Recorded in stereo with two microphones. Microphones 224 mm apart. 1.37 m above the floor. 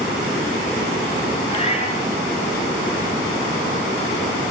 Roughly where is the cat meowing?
Left.